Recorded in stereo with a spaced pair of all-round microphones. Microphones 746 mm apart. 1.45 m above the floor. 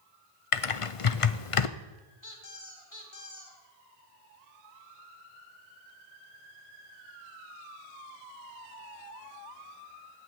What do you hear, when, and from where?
0.5 s typing on a keyboard: 45° left (ahead or behind), 0.7 m
2.2 s a squeak: 25° left (ahead or behind), 3.5 m